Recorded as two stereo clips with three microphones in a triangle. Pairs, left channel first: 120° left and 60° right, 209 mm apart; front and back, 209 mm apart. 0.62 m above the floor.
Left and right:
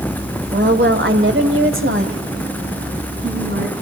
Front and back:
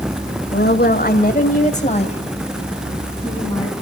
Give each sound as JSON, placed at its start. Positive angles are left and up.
{"t": 0.5, "sound": "a woman speaking", "azimuth_deg": -30, "distance_m": 2.0}